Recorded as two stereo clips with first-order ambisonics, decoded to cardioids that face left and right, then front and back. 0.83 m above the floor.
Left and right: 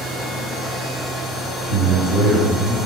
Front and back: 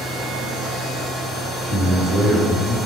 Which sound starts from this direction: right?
A man speaking, at 1.6 s.